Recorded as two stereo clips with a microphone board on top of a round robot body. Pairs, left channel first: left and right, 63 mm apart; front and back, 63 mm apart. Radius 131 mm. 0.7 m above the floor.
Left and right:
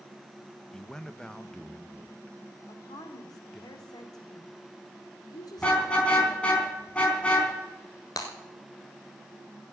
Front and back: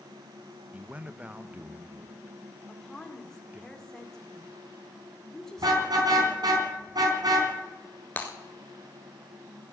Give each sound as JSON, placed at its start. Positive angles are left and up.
{"t": 0.7, "sound": "a man speaking", "azimuth_deg": 155, "distance_m": 0.9}
{"t": 2.7, "sound": "a woman speaking", "azimuth_deg": 80, "distance_m": 2.0}
{"t": 5.6, "sound": "a car horn", "azimuth_deg": 165, "distance_m": 4.0}
{"t": 8.2, "sound": "breaking glass", "azimuth_deg": 65, "distance_m": 0.9}